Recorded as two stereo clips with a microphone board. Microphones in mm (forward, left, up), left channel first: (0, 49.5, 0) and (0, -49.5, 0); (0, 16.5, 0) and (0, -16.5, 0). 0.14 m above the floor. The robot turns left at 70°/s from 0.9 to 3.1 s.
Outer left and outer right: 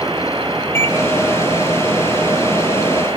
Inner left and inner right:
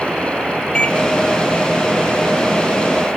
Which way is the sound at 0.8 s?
25° left (ahead or behind).